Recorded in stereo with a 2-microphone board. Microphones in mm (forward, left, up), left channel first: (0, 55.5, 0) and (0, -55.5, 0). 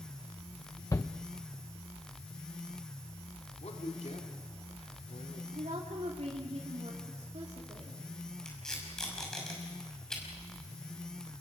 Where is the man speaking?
80° left, 3 m.